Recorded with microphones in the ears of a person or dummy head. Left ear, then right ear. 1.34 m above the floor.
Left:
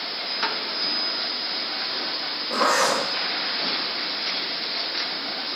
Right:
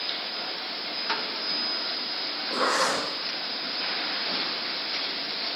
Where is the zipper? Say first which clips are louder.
Left 4 dB; 10° left (ahead or behind), 0.6 m.